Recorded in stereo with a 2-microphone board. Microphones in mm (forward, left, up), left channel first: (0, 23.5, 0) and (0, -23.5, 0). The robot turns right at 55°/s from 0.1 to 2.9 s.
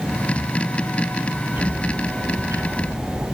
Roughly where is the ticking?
Behind right.